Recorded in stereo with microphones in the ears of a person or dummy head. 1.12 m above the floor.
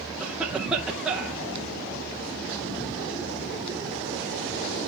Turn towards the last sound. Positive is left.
turn(degrees=-10)  # may be behind; listen again after turning